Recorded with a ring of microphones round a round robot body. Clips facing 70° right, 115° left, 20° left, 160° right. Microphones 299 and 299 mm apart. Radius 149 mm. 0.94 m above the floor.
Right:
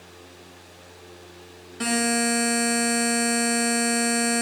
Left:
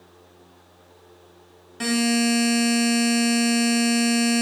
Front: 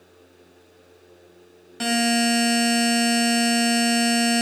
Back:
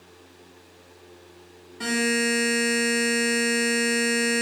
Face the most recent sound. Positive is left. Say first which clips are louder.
# left 3 dB, front 3 dB
turn(degrees=25)